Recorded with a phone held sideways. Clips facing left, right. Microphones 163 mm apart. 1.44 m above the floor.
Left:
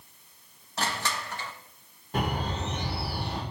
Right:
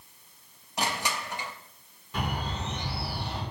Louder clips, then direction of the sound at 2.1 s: Left 3 dB; 45° left (ahead or behind).